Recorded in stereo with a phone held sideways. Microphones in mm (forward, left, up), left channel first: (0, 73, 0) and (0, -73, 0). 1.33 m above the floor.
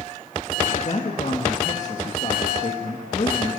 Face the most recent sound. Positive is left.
turn(degrees=50)  # may be behind; listen again after turning